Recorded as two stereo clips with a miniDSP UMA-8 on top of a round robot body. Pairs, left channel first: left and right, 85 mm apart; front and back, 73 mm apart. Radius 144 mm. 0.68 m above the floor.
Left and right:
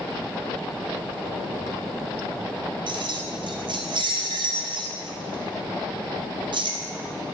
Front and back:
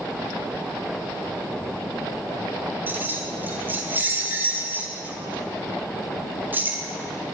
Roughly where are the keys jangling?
Behind right.